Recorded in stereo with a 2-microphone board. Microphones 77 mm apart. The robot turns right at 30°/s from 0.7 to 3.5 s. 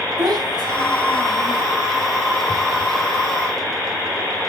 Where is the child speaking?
70° right (ahead or behind), 3 m; by 1.6 s 80° right, 3 m.